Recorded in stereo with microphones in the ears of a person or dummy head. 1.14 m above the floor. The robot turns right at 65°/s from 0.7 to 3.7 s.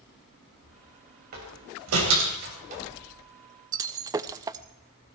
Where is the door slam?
50° right (ahead or behind), 4 m; by 2.8 s 35° right (ahead or behind), 4 m.